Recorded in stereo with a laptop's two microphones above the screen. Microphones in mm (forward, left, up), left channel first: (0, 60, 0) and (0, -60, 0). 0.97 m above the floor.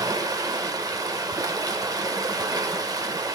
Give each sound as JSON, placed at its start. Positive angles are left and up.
{"t": 0.0, "sound": "running water", "side_deg": -30, "distance_m": 0.8}